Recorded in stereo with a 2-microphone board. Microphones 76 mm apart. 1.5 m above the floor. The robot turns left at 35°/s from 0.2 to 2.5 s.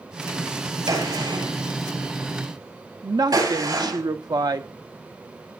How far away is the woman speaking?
About 1.1 m.